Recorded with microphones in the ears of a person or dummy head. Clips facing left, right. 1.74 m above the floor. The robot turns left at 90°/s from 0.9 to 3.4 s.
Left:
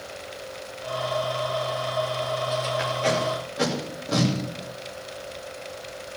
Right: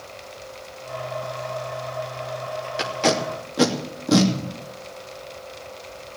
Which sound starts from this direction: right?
Tape being pulled, at 2.8 s.